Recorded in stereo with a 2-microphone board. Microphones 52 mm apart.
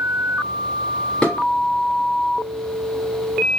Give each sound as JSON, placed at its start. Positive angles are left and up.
{"t": 1.2, "sound": "dishes clattering", "side_deg": 10, "distance_m": 3.0}